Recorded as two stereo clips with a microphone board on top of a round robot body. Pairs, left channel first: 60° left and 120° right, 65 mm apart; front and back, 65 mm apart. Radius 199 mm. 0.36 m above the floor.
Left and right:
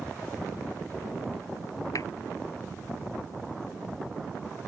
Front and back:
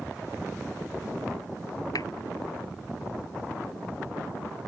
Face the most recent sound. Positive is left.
turn(degrees=25)